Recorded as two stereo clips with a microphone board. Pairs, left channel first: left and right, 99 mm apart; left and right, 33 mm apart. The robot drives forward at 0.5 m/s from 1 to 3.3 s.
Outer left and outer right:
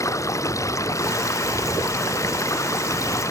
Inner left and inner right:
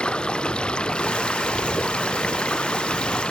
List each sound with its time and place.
0.0 s running water: 30° left (ahead or behind)